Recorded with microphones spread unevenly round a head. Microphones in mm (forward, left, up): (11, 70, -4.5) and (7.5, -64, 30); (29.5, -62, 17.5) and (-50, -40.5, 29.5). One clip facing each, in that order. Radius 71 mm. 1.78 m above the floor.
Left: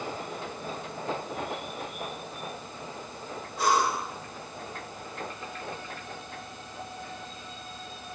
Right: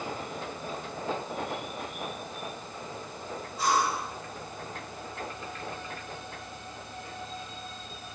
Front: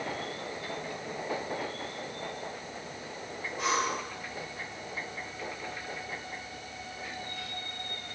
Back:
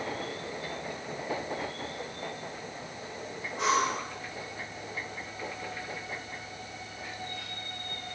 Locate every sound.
3.6 s breathing: 135° left, 1.7 m